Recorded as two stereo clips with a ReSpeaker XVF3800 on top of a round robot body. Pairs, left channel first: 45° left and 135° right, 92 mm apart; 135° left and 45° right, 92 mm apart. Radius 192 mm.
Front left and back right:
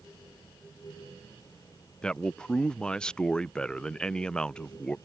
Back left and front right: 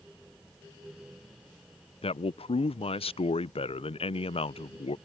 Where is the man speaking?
125° left.